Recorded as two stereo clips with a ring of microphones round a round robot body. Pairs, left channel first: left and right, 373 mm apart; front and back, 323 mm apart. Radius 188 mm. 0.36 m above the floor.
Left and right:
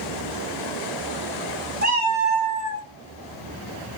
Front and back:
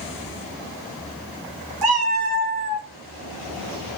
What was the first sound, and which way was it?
A cat meowing, 155° right.